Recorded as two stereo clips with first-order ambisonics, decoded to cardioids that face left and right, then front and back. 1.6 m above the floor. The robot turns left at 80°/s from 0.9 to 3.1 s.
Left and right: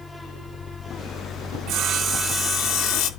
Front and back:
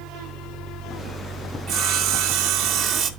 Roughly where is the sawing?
Behind right.